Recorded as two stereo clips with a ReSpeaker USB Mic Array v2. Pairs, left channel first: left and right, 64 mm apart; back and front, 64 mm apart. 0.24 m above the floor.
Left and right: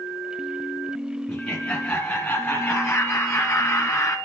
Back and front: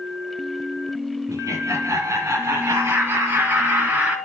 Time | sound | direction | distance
1.3 | laughter | 15° left | 2.5 m